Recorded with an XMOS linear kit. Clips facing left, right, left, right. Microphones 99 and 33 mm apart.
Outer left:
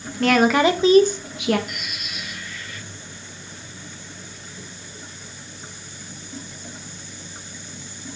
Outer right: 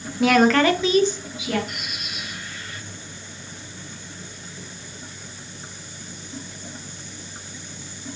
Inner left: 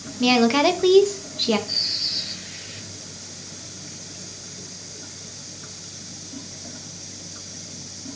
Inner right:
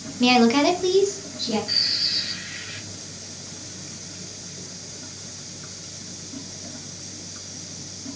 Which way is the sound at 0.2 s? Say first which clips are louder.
Even, even; 5° right (ahead or behind).